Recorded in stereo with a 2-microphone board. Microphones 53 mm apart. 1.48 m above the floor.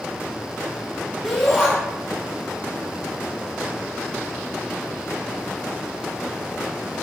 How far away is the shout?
About 4 m.